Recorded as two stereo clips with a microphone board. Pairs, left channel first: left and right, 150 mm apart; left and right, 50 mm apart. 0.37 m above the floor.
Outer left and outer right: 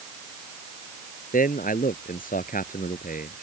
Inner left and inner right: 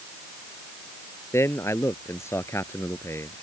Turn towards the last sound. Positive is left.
turn(degrees=65)  # may be behind; listen again after turning